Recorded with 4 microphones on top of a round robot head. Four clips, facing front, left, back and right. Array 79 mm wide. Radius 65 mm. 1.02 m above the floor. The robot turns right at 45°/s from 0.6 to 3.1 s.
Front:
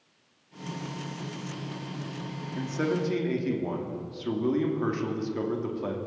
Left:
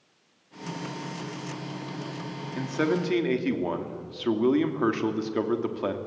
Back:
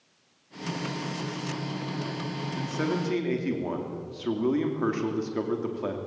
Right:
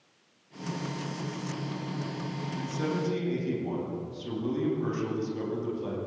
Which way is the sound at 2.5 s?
75° left.